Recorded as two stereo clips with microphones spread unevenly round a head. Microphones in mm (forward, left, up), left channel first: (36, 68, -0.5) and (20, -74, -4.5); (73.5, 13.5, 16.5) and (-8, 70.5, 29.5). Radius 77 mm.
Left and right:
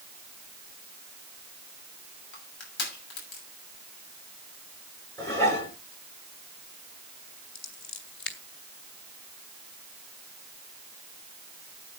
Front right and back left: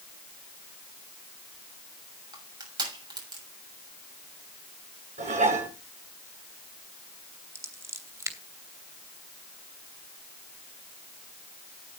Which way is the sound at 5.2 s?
155° left.